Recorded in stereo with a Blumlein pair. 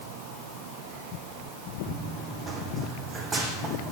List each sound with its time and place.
1.9 s running footsteps: 10° right, 4 m